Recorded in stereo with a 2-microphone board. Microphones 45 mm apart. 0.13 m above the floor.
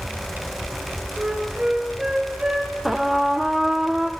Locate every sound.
1.2 s a flute: 15° right (ahead or behind), 2.5 m
2.9 s a trumpet: 5° right (ahead or behind), 0.8 m